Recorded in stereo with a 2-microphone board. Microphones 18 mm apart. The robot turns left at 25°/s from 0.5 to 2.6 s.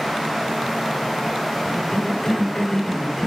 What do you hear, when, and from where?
1.6 s a cough: 60° left (ahead or behind), 5 m; by 3.3 s 35° left (ahead or behind), 5 m